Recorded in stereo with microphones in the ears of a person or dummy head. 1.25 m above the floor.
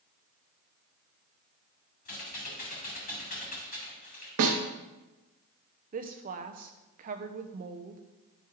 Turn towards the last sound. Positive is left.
turn(degrees=-40)  # may be behind; listen again after turning